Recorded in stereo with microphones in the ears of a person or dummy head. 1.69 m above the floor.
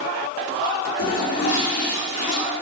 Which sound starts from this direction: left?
A toilet flushing, at 1.0 s.